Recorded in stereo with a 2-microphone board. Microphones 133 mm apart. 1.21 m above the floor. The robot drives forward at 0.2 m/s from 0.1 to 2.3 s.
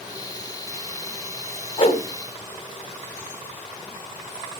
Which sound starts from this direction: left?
A whoosh, at 1.8 s.